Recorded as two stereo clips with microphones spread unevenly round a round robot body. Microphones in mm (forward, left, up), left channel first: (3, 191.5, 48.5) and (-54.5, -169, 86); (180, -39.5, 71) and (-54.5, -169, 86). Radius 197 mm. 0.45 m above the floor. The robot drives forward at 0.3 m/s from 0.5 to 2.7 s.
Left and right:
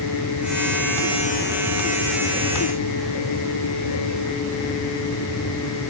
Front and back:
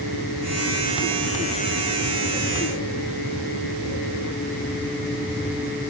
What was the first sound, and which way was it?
Only background noise.